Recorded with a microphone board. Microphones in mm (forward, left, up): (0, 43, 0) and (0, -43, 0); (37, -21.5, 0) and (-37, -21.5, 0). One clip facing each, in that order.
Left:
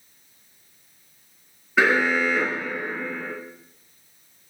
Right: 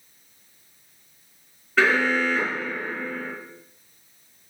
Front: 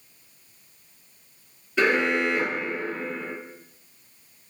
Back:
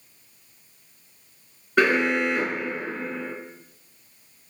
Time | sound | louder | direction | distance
1.8 | an alarm | left 1 dB, back 2 dB | 170° left | 3 m